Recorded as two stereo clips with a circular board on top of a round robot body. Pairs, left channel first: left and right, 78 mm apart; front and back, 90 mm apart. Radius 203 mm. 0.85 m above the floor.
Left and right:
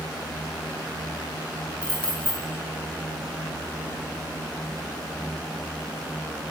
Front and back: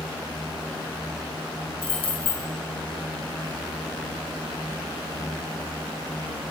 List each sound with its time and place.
1.8 s keys jangling: 10° left, 1.9 m